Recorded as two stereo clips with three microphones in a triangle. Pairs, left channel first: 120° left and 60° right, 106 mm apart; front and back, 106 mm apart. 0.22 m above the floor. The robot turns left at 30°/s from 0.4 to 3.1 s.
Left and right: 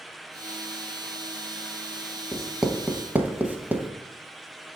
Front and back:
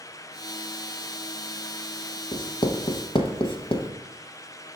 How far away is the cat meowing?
No cat meowing in this recording.